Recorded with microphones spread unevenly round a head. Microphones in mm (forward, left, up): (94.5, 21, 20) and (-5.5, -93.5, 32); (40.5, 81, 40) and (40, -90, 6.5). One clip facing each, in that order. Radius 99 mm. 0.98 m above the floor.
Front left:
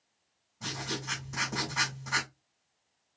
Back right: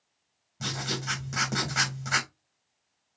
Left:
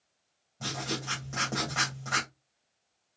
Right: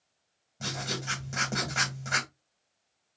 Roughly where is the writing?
Behind.